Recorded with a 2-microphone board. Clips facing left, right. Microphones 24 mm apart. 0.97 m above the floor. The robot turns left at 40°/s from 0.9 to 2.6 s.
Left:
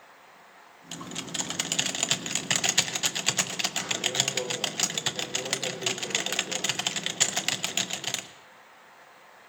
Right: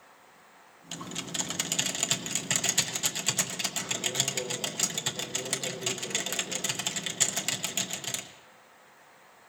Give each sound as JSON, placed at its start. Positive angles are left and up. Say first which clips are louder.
{"t": 0.9, "sound": "typing on a keyboard", "louder": "left 1 dB", "azimuth_deg": -175, "distance_m": 0.7}